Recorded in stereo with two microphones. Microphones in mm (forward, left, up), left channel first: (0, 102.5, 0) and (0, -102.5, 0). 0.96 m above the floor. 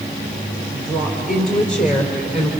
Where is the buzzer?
I don't hear a buzzer.